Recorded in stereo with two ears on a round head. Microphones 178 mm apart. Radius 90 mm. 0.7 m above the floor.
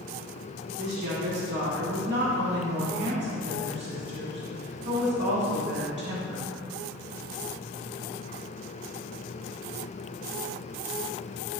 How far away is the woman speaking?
About 1.7 m.